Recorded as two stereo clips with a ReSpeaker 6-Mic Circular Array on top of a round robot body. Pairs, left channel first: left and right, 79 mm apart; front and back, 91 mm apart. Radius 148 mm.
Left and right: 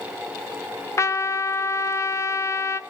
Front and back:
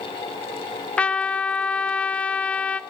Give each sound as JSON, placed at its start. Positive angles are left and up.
{"t": 1.0, "sound": "a trumpet", "azimuth_deg": 70, "distance_m": 0.6}